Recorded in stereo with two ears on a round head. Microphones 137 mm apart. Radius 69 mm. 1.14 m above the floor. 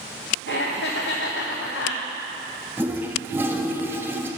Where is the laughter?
80° left, 0.7 m.